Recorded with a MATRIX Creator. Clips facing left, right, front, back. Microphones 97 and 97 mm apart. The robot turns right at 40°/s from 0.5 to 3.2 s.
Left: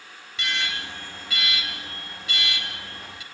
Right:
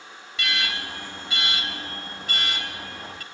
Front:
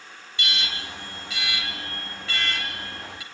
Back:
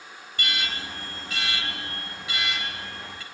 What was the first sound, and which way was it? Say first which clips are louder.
An alarm: right 1 dB, back 1 dB; straight behind.